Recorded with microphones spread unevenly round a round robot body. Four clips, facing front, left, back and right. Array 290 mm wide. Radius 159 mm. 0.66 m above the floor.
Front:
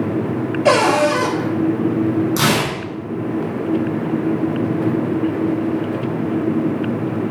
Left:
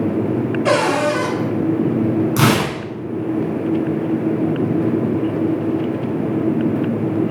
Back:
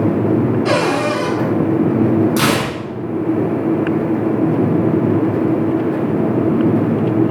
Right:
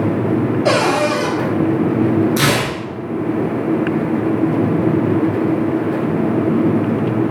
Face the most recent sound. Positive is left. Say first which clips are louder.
# left 1 dB, back 2 dB
turn(degrees=95)